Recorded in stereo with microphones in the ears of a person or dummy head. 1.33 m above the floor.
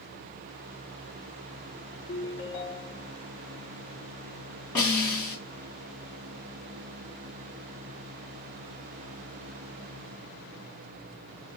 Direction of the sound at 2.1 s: 25° left (ahead or behind).